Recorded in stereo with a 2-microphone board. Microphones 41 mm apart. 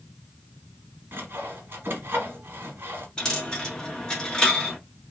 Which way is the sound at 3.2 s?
20° left (ahead or behind).